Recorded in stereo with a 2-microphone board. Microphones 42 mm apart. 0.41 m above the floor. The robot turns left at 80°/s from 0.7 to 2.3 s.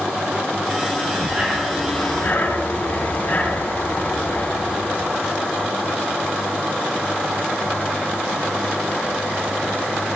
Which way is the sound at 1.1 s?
130° right.